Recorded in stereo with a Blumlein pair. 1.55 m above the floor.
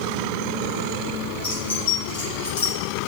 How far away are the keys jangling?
About 4 m.